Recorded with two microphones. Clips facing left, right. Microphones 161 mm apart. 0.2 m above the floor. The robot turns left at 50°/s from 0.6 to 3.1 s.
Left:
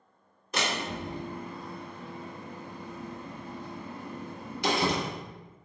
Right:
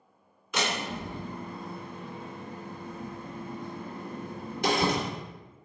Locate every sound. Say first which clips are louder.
0.5 s a door slam: even; 40° left (ahead or behind), 1.8 m; by 5.1 s 50° right (ahead or behind), 1.8 m